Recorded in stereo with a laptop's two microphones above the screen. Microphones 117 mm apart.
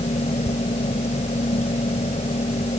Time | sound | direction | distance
0.0 | a fan | 70° left (ahead or behind) | ?